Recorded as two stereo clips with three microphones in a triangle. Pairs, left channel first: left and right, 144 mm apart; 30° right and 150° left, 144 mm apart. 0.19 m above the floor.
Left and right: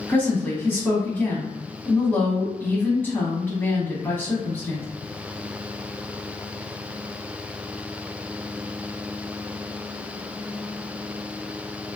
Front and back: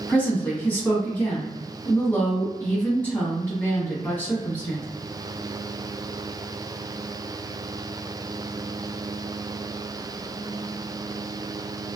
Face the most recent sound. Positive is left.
turn(degrees=30)